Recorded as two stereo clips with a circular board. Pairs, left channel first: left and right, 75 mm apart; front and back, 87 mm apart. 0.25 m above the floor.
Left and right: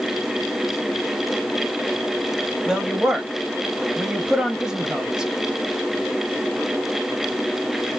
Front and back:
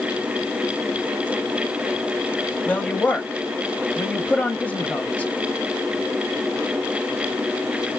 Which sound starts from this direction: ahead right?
A woman speaking, at 2.7 s.